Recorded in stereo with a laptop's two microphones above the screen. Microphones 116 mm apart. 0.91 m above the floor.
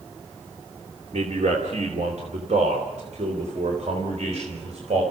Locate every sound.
1.1 s a man speaking: 75° right (ahead or behind), 2.5 m; by 5.0 s 70° right (ahead or behind), 4.5 m